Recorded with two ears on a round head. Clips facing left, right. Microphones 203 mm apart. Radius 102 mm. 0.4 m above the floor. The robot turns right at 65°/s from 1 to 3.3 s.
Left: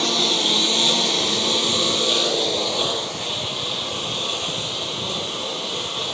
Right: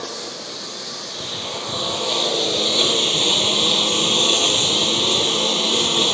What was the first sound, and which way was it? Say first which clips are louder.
A lawn mower: left 8 dB; 90° left.